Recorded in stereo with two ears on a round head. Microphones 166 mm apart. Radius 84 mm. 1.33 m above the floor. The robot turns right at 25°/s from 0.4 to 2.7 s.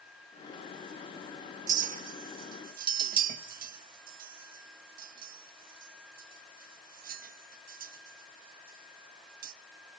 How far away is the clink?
About 0.8 m.